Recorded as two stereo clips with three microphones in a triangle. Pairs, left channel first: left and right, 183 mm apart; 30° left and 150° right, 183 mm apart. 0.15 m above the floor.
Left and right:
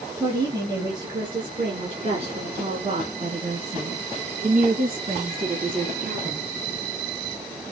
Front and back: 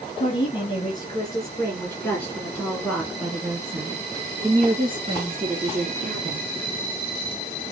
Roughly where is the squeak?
No squeak in this recording.